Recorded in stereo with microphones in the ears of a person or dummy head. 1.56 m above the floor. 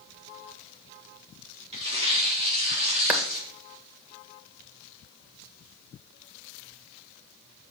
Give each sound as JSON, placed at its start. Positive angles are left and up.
{"t": 1.7, "sound": "tearing paper", "side_deg": -35, "distance_m": 3.5}
{"t": 3.1, "sound": "a clap", "side_deg": -10, "distance_m": 1.6}